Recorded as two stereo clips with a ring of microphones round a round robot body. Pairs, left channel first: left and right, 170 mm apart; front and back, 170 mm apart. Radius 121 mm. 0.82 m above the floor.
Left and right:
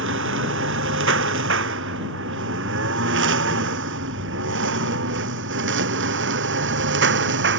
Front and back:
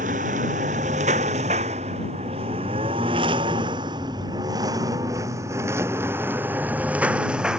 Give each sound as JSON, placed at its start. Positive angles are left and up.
{"t": 0.0, "sound": "a lawn mower", "azimuth_deg": -120}